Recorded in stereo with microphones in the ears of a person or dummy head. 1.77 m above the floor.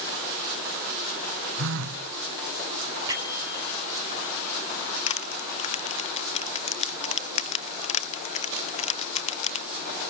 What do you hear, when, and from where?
1.6 s a phone buzzing: 70° right (ahead or behind), 1.7 m
3.1 s a bell: 20° right (ahead or behind), 5 m
5.1 s crushing: 35° left (ahead or behind), 0.8 m